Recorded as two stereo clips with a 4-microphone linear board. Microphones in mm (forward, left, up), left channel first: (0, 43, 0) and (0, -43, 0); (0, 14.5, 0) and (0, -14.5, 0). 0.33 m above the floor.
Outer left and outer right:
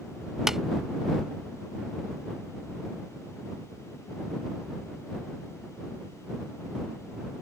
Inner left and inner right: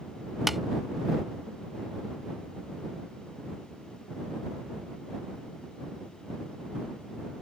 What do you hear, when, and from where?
0.5 s tapping: 5° right (ahead or behind)